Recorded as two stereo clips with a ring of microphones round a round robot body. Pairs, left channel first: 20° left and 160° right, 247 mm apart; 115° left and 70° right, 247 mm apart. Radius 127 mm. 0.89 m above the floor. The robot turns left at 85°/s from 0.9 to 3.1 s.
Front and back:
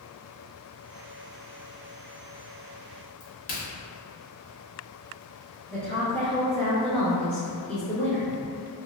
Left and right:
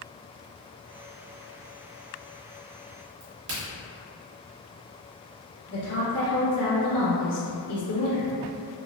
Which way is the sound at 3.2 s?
10° right.